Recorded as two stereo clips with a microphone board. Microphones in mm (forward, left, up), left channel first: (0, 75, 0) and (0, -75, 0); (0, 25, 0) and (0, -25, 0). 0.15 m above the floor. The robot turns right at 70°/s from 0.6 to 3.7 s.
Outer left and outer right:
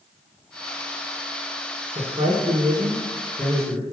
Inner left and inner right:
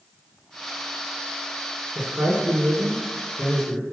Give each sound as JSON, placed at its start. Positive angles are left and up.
{"t": 1.9, "sound": "a man speaking", "azimuth_deg": -110, "distance_m": 1.8}